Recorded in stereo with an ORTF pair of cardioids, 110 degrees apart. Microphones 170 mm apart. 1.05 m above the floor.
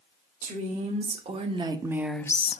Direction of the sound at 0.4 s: 45° right.